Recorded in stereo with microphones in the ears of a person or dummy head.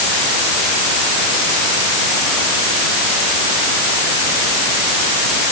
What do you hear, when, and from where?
Only background noise.